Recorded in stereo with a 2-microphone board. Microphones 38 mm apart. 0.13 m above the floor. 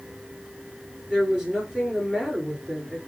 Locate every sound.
1.1 s a woman speaking: 20° right (ahead or behind), 2 m